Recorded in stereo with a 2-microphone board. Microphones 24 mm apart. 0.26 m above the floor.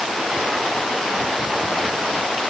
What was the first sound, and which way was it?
Only background noise.